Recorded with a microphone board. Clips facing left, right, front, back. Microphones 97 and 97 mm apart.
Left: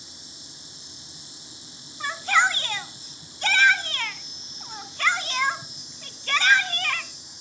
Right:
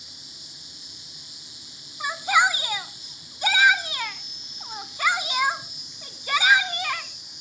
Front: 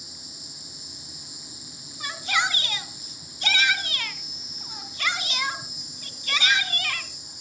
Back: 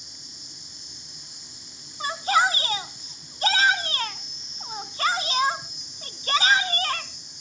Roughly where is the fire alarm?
No fire alarm in this recording.